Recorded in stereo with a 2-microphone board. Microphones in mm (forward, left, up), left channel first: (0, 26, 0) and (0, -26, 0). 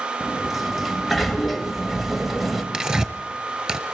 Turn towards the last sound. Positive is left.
turn(degrees=-15)  # may be behind; listen again after turning